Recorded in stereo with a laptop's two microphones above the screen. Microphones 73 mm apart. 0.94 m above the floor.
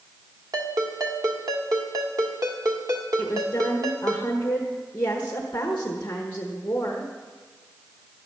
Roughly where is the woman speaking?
Left.